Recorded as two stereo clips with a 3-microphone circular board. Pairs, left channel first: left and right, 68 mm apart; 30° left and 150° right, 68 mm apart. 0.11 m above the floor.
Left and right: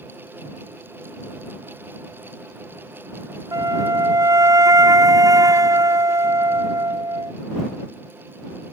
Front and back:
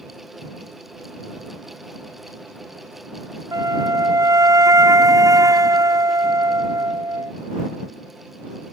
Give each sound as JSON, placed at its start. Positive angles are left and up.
{"t": 3.5, "sound": "a flute", "azimuth_deg": -120}